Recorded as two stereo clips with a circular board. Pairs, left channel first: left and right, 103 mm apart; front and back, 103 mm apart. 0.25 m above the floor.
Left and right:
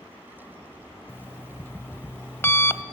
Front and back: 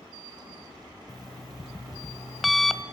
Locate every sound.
1.1 s an alarm clock: 90° left, 0.5 m